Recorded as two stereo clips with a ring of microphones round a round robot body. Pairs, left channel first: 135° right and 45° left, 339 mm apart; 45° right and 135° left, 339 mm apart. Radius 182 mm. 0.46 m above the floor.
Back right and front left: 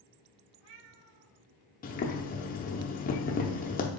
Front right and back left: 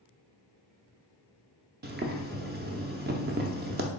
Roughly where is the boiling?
Behind.